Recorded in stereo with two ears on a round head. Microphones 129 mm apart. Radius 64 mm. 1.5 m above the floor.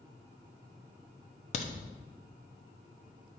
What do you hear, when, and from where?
1.5 s a crack: 50° left (ahead or behind), 0.9 m